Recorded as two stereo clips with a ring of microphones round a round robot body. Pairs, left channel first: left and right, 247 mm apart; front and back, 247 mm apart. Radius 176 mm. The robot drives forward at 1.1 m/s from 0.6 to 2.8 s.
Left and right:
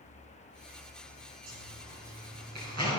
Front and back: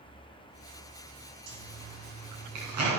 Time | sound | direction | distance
1.5 | a zipper | 145° right | 2.5 m